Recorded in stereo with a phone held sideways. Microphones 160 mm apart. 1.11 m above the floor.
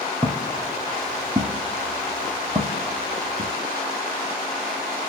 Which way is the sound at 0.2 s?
20° right (ahead or behind).